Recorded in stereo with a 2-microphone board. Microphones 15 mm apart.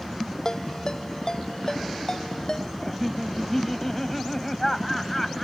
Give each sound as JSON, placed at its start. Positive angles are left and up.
{"t": 0.5, "sound": "a ringtone", "side_deg": 40}
{"t": 2.8, "sound": "laughter", "side_deg": 15}